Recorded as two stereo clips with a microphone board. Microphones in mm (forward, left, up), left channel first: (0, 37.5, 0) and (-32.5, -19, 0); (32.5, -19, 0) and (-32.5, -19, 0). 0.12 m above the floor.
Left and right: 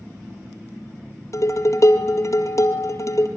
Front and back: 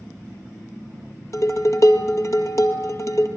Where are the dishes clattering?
30° left, 1.9 m.